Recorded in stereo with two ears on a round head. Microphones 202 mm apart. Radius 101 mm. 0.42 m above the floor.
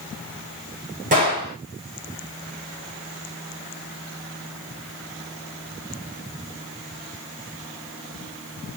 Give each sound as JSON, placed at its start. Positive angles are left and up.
{"t": 1.1, "sound": "a gunshot", "side_deg": -40, "distance_m": 5.0}